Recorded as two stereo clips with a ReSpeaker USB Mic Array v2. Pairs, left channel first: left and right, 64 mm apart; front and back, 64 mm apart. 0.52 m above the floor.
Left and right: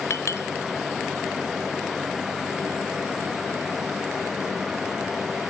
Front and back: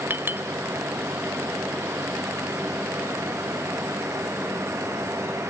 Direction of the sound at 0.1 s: 130° left.